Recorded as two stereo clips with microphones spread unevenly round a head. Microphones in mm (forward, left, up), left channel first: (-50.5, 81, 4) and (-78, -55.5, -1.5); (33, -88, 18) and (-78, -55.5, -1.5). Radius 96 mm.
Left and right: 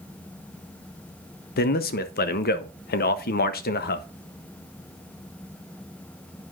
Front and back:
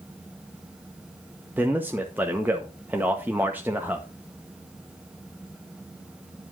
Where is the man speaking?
80° left, 0.6 m.